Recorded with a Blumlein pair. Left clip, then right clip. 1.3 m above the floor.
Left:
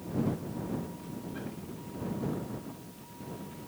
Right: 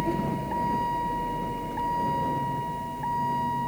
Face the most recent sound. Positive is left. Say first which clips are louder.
# right 7 dB
turn(degrees=-40)